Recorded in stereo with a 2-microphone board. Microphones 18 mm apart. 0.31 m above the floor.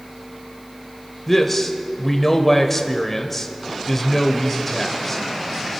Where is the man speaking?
15° left (ahead or behind), 0.9 m.